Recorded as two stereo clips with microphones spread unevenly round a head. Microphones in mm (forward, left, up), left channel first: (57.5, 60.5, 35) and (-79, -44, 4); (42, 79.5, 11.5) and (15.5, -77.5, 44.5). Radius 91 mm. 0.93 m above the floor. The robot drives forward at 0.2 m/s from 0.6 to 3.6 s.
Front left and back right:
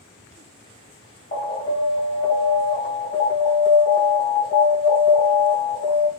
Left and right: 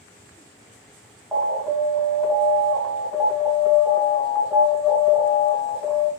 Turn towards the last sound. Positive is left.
turn(degrees=20)